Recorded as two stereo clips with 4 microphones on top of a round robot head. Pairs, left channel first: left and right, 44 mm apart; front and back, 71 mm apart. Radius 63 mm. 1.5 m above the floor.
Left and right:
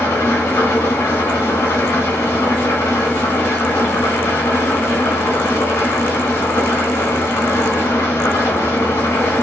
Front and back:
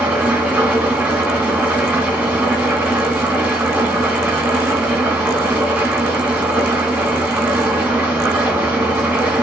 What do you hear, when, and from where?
0.0 s an engine running: 110° left, 2 m